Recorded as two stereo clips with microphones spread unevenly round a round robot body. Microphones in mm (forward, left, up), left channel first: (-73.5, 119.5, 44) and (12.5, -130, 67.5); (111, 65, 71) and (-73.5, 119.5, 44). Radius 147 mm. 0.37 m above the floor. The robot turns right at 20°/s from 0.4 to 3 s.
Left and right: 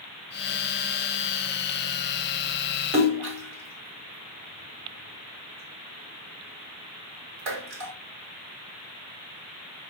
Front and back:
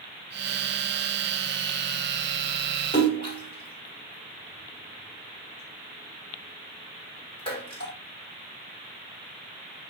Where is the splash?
80° right, 1.6 m.